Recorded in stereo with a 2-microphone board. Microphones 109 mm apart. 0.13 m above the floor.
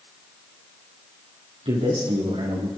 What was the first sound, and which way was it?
A man speaking, 75° right (ahead or behind).